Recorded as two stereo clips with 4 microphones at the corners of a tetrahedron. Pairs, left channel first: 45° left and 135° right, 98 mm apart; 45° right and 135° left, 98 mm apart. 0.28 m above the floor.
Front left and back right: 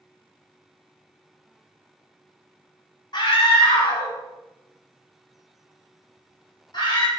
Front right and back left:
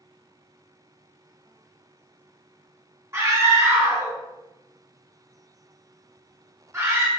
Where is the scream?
75° left, 3 m.